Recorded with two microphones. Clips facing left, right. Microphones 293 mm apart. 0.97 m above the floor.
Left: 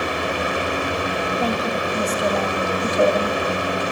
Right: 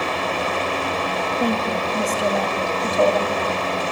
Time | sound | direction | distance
1.4 | a woman speaking | 20° right (ahead or behind) | 1.4 m